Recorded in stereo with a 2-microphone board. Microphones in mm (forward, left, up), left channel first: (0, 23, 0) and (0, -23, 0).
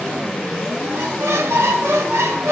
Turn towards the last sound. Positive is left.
turn(degrees=-80)